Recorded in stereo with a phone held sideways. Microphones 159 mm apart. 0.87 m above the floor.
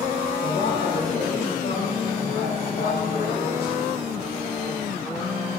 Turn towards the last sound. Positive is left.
turn(degrees=75)  # may be behind; listen again after turning